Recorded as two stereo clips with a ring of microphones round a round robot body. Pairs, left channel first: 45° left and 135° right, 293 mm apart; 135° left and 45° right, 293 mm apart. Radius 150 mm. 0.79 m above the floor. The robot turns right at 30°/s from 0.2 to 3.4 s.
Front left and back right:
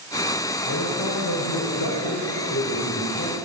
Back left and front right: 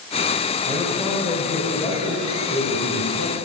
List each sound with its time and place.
0.7 s a man speaking: 25° left, 4 m; by 3.4 s 110° left, 4 m